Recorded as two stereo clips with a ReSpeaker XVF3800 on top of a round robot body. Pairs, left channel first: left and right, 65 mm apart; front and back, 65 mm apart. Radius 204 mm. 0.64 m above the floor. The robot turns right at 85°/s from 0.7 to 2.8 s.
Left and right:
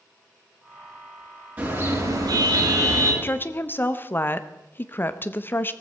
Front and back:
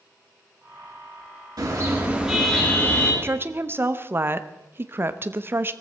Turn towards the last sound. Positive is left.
turn(degrees=140)